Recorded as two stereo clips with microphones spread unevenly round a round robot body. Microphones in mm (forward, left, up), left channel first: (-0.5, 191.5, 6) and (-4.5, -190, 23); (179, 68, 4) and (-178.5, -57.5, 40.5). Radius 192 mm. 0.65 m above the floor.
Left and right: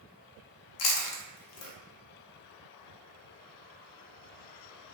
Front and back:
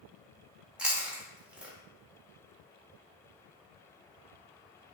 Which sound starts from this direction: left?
Chewing, at 0.8 s.